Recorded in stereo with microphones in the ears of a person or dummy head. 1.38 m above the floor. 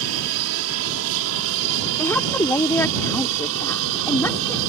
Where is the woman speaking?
15° left (ahead or behind).